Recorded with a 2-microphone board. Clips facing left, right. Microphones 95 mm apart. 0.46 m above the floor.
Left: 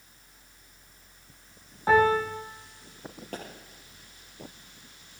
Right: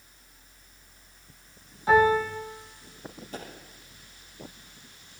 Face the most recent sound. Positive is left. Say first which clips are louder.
# left 1 dB
turn(degrees=65)  # may be behind; listen again after turning